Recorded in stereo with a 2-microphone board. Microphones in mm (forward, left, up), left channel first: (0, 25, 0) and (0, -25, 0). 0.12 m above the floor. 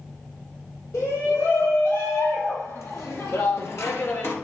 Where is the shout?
75° left (ahead or behind), 4.5 m; by 4.4 s 45° left (ahead or behind), 1.7 m.